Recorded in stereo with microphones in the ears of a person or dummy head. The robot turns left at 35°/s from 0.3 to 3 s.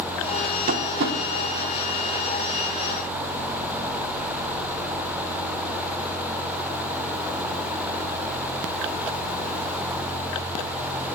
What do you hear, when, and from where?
0.7 s tapping: 50° right (ahead or behind), 3.5 m; by 1.2 s 70° right (ahead or behind), 3.5 m